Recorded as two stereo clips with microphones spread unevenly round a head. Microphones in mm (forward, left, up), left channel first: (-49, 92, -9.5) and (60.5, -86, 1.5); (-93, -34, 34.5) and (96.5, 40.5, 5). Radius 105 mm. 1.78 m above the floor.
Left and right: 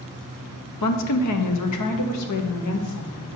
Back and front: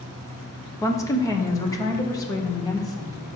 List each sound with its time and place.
0.8 s a woman speaking: 130° left, 1.0 m